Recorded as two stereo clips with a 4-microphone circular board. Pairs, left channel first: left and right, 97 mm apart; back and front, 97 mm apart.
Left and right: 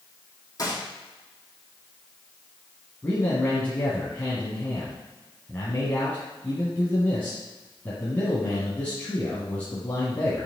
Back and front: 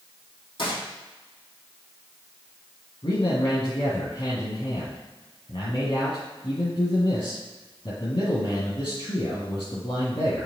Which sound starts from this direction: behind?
A man speaking, at 3.0 s.